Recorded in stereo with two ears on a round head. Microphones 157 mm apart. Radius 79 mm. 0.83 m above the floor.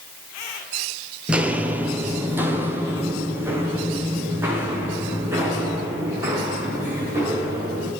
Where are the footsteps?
5° right (ahead or behind), 1.0 m; by 7.9 s 15° right (ahead or behind), 7 m.